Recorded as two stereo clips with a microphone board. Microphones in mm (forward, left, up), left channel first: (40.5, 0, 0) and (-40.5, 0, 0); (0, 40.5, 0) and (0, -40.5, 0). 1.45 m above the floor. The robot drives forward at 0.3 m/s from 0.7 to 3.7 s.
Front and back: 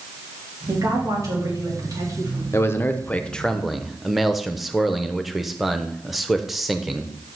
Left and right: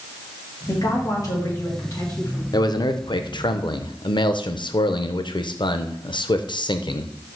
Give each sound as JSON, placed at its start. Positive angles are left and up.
{"t": 0.7, "sound": "a woman speaking", "azimuth_deg": 130, "distance_m": 3.0}
{"t": 2.5, "sound": "a man speaking", "azimuth_deg": 55, "distance_m": 0.6}